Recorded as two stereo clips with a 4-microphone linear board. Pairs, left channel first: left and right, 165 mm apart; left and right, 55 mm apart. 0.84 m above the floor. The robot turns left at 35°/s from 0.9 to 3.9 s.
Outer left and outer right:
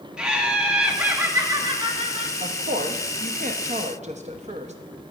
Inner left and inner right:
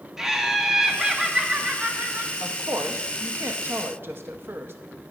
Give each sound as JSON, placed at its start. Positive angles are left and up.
{"t": 0.2, "sound": "laughter", "azimuth_deg": -5, "distance_m": 1.1}
{"t": 2.4, "sound": "a woman speaking", "azimuth_deg": -70, "distance_m": 0.7}